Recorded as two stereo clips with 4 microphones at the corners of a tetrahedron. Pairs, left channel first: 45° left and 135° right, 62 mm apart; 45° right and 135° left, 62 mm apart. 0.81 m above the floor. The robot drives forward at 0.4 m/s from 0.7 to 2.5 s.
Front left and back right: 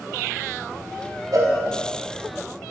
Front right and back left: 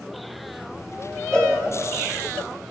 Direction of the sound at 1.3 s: 125° right.